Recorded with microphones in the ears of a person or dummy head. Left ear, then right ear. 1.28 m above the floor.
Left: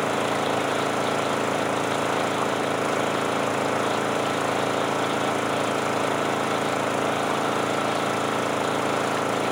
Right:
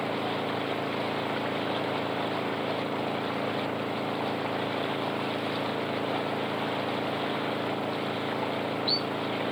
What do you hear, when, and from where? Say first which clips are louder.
0.0 s an engine running: left 6 dB; 65° left (ahead or behind)